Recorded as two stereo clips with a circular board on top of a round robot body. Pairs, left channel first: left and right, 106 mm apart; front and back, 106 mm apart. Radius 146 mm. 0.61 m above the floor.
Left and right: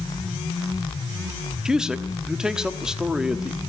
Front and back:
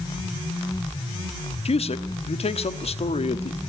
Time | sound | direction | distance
1.6 | a man speaking | 5° right | 1.2 m